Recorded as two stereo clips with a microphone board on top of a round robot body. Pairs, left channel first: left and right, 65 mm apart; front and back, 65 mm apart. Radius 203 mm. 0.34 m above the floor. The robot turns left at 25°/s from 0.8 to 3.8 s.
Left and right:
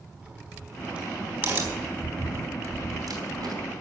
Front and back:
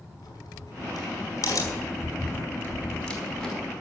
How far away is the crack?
About 4.5 m.